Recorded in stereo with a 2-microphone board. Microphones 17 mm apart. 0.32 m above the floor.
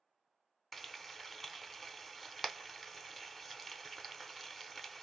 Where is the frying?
Centre (ahead or behind), 0.5 m.